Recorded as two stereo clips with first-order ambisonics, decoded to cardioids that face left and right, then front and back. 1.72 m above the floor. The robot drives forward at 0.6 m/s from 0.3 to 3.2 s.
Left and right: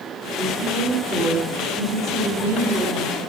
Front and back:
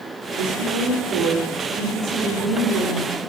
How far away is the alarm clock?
I don't hear an alarm clock.